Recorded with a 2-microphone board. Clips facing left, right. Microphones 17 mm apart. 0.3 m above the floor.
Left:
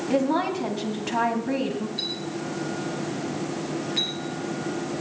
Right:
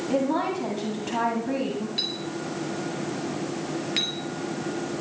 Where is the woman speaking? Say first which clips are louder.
Left 2 dB; 15° left (ahead or behind), 2 m.